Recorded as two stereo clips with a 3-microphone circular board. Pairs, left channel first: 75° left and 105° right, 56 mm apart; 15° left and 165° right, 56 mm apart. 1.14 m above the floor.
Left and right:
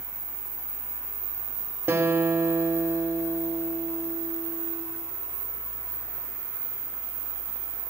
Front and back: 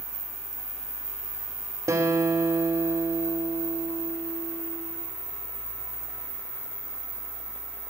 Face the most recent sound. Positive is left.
turn(degrees=-155)